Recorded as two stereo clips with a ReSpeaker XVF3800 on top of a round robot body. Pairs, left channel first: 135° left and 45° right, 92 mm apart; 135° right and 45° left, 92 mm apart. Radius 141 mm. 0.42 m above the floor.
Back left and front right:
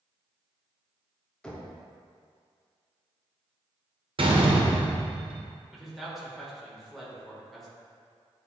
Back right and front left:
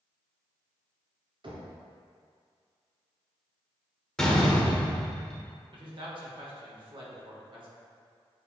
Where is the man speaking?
45° left, 2 m.